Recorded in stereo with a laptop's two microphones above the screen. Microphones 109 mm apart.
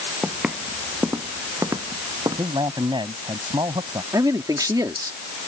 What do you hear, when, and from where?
0.2 s footsteps: 5° right (ahead or behind); by 2.5 s 40° right (ahead or behind)
2.4 s a man speaking: 45° right (ahead or behind)
4.1 s a man speaking: 35° right (ahead or behind)